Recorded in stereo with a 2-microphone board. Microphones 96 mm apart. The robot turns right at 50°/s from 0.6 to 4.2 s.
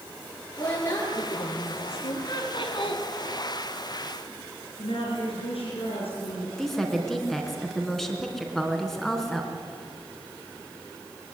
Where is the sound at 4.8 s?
80° left, 5.5 m.